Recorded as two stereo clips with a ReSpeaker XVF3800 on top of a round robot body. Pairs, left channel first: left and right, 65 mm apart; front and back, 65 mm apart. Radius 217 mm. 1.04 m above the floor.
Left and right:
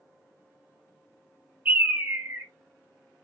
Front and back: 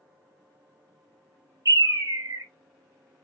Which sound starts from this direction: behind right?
A bird, at 1.6 s.